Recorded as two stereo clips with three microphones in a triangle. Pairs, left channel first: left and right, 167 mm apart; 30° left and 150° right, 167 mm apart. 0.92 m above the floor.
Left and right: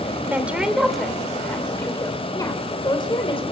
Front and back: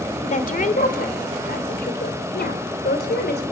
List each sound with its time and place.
0.2 s a woman speaking: 10° right, 3 m; by 3.4 s 35° left, 3.5 m